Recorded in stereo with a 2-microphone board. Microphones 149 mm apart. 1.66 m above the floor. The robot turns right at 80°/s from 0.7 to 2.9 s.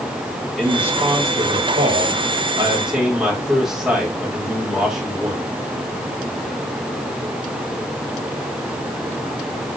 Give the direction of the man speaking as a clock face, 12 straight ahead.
6 o'clock.